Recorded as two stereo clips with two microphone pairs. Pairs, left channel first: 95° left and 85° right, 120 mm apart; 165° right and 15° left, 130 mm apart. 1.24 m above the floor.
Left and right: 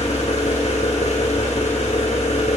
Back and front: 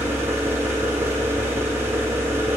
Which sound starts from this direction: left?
An engine running, at 0.0 s.